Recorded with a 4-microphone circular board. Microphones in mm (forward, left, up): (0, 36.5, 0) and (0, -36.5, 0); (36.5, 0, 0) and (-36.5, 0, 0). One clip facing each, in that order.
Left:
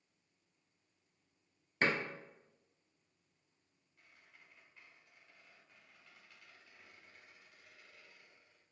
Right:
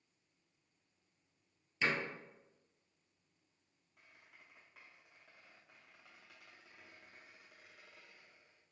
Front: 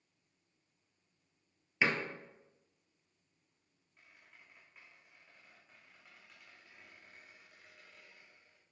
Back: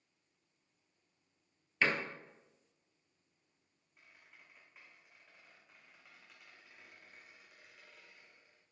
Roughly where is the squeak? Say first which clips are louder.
Right 1 dB, even; right.